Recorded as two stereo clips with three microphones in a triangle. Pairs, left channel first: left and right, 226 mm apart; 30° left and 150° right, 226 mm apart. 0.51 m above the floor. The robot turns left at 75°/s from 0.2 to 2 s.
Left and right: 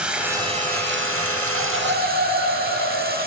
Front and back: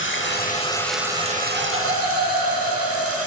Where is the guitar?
I don't hear a guitar.